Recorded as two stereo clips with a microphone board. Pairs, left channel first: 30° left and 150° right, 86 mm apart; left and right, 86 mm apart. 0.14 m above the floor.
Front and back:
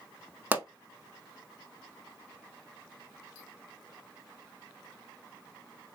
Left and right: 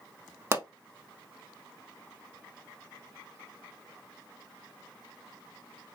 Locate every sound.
0.5 s a pop: 105° right, 0.6 m